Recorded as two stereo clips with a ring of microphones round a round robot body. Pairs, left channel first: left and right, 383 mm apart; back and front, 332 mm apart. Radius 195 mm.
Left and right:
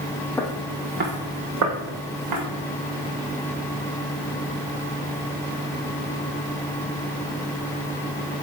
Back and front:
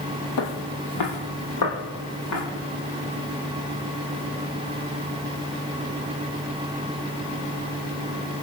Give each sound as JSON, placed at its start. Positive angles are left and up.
{"t": 0.4, "sound": "footsteps", "azimuth_deg": 175, "distance_m": 0.7}